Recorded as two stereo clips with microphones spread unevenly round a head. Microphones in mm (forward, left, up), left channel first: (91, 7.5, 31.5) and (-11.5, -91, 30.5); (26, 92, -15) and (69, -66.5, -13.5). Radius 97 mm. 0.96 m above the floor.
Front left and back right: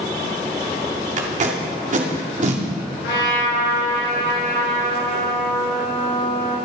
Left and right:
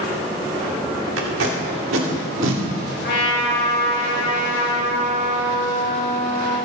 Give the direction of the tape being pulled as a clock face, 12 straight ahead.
3 o'clock.